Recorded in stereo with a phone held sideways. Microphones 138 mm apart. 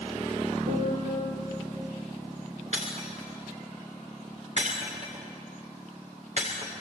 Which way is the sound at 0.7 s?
85° right.